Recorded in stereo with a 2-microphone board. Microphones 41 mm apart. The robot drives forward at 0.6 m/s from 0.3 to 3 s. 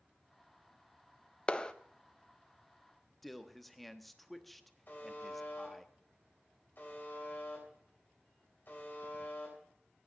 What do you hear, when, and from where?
1.5 s a clap: 25° left (ahead or behind), 0.6 m; by 1.7 s 20° left (ahead or behind), 0.7 m
3.2 s a man speaking: centre (ahead or behind), 1.1 m
4.9 s a buzzer: 50° left (ahead or behind), 4 m